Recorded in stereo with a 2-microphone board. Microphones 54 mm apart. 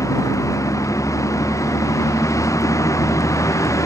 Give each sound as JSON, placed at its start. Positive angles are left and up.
{"t": 0.0, "sound": "a vehicle", "side_deg": 85}